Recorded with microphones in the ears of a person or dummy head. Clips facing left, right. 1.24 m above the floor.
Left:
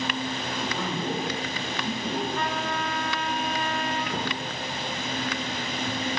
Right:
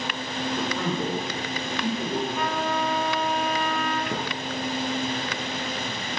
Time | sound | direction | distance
0.4 | a man speaking | 65° right (ahead or behind) | 5 m
2.4 | a trumpet | 5° right (ahead or behind) | 3.5 m
4.1 | a thud | 65° right (ahead or behind) | 5.5 m